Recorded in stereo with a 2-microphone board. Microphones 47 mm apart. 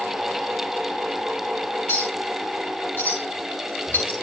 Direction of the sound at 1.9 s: 60° left (ahead or behind).